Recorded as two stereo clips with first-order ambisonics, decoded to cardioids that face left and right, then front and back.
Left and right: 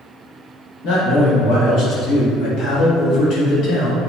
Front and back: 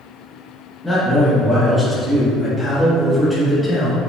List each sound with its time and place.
0.8 s a man speaking: 95° left, 1.2 m